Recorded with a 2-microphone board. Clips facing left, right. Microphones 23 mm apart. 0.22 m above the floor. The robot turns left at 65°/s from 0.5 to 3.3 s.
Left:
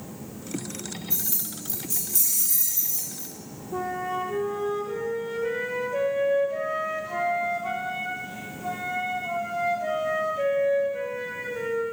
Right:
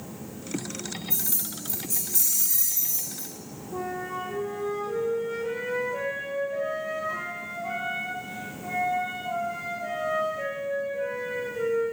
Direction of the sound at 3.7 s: 20° left (ahead or behind).